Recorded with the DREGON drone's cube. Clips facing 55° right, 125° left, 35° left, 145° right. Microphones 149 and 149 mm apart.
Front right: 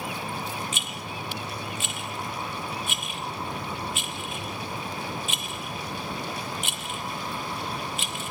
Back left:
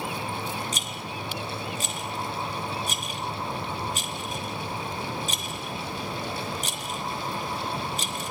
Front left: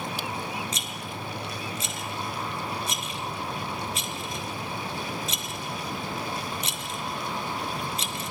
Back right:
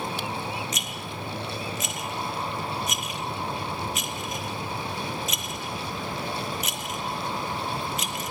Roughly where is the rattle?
Left.